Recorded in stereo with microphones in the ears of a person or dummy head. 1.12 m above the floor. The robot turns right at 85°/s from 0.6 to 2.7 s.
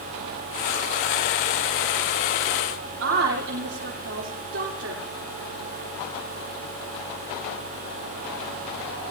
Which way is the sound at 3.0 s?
70° right (ahead or behind).